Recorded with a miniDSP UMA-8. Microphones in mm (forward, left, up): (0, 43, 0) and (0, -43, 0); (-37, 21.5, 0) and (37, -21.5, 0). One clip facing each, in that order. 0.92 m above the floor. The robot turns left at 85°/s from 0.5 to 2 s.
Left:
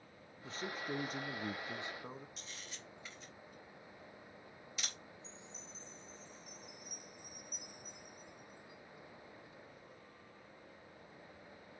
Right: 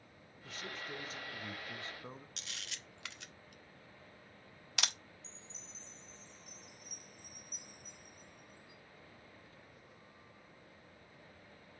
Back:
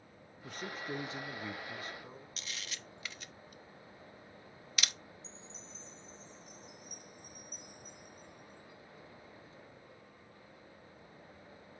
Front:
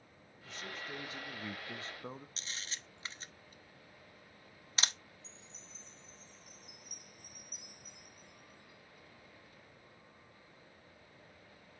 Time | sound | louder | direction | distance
0.4 | a man speaking | left 4 dB, back 4 dB | 140° left | 0.9 m
2.4 | a camera shutter | right 1 dB, back 1 dB | 85° right | 0.6 m
5.2 | a chime | left 3 dB, back 5 dB | 55° left | 1.5 m